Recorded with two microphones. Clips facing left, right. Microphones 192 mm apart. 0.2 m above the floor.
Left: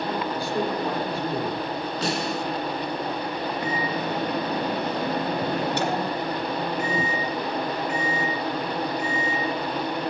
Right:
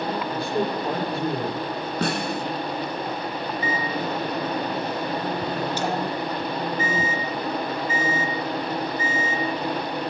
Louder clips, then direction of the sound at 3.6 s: Right 1 dB; 65° left (ahead or behind).